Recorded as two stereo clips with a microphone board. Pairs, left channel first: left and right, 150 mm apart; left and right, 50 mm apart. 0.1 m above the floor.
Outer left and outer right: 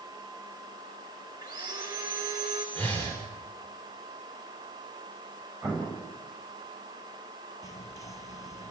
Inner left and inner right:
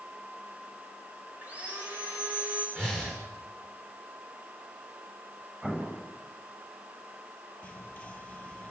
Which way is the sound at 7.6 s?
20° left (ahead or behind).